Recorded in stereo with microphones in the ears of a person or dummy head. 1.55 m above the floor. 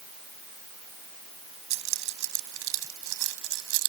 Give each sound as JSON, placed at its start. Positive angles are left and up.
{"t": 1.7, "sound": "keys jangling", "side_deg": -65}